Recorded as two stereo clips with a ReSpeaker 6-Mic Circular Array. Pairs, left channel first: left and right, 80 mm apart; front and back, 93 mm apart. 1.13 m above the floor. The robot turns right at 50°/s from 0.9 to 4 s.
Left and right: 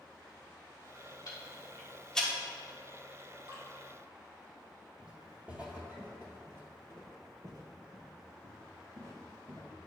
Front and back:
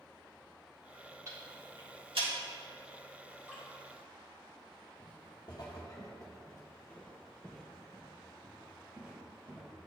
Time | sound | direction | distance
1.3 | ticking | 125° left | 1.7 m
3.5 | dripping | 100° right | 2 m
5.0 | footsteps | 15° right | 1.9 m